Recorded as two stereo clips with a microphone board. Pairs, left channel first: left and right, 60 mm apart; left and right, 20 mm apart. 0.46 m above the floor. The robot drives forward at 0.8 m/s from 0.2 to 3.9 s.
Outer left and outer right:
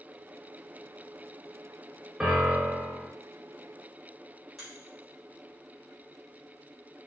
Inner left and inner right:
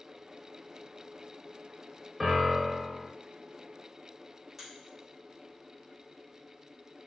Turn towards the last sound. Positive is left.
turn(degrees=0)  # may be behind; listen again after turning